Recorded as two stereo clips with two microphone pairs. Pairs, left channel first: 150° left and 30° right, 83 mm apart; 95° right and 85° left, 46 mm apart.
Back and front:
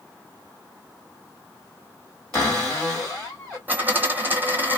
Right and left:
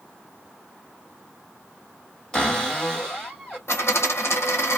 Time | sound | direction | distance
2.3 | a cupboard door | 145° right | 1.7 m
3.7 | a dropped coin | 95° right | 0.8 m